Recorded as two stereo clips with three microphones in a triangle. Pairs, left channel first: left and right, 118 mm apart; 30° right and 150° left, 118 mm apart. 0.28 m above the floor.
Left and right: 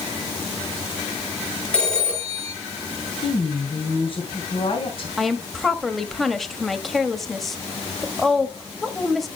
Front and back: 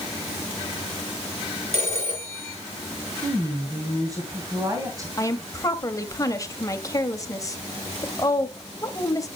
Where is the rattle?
No rattle in this recording.